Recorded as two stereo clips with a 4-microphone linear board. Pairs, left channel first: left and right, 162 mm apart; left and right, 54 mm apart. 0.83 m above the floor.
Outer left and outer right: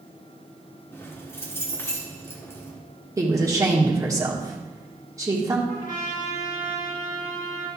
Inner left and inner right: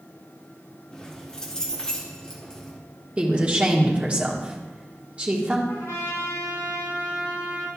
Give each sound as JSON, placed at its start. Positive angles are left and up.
{"t": 0.9, "sound": "keys jangling", "side_deg": 15, "distance_m": 1.2}
{"t": 3.2, "sound": "a woman speaking", "side_deg": -20, "distance_m": 1.6}
{"t": 5.7, "sound": "a trumpet", "side_deg": 75, "distance_m": 3.0}